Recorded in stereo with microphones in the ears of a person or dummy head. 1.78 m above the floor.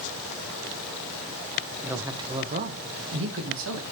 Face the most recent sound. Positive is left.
turn(degrees=-70)  # may be behind; listen again after turning